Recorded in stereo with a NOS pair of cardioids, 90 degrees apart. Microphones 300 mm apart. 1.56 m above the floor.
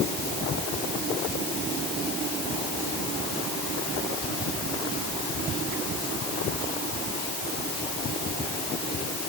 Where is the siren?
I don't hear a siren.